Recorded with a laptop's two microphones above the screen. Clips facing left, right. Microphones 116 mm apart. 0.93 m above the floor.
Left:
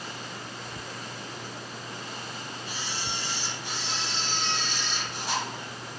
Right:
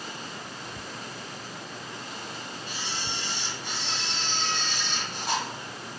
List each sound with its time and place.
2.7 s a camera shutter: 50° right (ahead or behind), 1.4 m